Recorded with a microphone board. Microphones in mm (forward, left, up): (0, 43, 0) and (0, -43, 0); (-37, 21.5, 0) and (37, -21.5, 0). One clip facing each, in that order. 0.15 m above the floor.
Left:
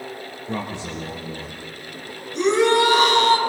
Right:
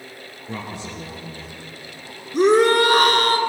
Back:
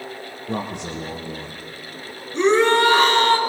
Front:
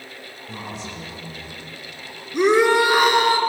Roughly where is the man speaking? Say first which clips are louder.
Left 3 dB, back 7 dB; behind.